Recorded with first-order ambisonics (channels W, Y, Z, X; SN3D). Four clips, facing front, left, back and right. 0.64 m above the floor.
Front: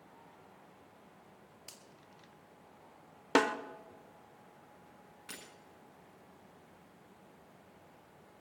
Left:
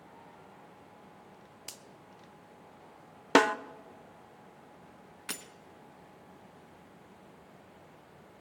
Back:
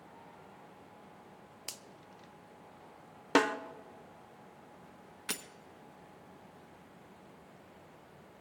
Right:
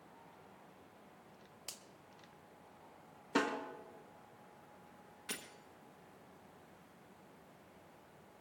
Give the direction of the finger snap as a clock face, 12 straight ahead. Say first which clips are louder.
Left 3 dB, back 9 dB; 7 o'clock.